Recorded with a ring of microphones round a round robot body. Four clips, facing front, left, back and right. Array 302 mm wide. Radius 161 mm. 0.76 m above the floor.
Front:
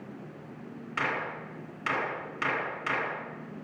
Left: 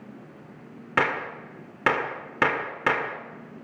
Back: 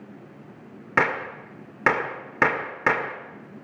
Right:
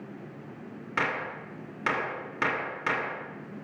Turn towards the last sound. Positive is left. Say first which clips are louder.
# left 5 dB, back 8 dB
turn(degrees=145)